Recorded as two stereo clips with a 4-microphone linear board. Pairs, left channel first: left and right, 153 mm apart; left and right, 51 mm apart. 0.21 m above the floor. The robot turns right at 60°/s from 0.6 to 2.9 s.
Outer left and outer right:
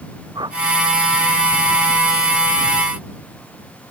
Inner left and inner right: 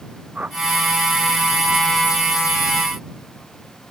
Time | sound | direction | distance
0.3 | a whoosh | 30° right (ahead or behind) | ?